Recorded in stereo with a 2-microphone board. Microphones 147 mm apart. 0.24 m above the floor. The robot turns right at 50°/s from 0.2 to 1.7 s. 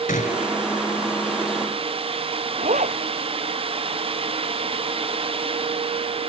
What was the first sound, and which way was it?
A gunshot, 80° left.